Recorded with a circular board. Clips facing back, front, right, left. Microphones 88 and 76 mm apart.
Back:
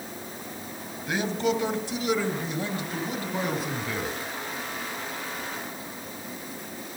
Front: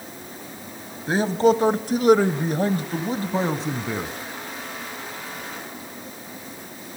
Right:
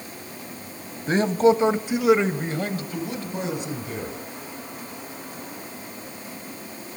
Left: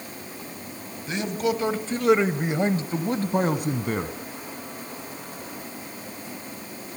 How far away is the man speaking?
About 1.9 m.